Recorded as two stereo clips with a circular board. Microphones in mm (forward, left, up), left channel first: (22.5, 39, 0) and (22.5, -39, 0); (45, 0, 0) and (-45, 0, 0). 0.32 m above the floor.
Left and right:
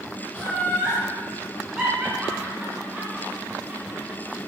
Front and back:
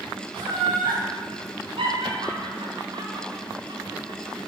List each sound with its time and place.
0.3 s laughter: 175° left, 4 m; by 4.4 s 145° right, 3 m